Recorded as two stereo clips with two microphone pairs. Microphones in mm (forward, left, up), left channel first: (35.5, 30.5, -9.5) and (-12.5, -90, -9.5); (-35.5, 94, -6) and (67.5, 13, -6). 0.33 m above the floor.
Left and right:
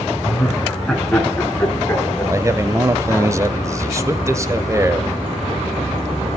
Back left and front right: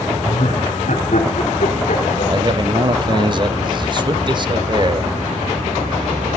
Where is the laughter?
155° left, 4 m; by 3.3 s 140° left, 6 m.